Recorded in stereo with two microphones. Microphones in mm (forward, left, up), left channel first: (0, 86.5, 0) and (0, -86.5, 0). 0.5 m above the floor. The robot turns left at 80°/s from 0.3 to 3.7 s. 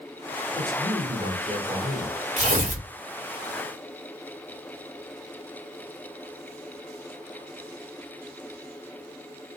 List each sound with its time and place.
0.6 s a man speaking: 15° left, 1.7 m; by 2.2 s 115° right, 1.7 m
2.4 s tearing paper: 65° right, 1.5 m; by 2.9 s 105° right, 1.5 m